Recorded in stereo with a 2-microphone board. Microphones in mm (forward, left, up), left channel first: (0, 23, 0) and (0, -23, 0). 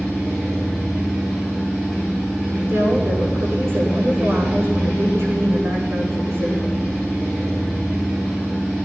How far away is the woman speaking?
About 8.5 m.